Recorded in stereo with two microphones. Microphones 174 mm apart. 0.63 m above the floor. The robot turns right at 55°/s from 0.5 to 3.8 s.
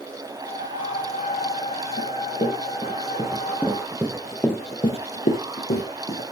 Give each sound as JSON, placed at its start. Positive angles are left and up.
{"t": 2.0, "sound": "running footsteps", "side_deg": 60, "distance_m": 4.0}